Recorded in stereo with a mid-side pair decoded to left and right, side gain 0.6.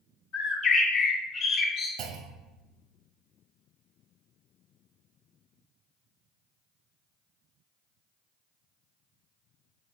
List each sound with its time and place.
0.3 s a bird: 70° left, 1.2 m
2.0 s a clunk: 70° right, 0.5 m